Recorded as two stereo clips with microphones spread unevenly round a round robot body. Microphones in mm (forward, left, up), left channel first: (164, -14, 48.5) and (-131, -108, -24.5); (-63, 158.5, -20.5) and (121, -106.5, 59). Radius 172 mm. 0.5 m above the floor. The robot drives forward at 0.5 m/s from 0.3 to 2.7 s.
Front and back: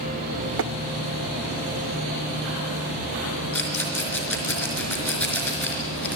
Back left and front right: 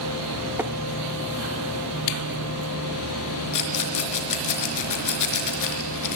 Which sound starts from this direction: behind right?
Tapping, at 0.6 s.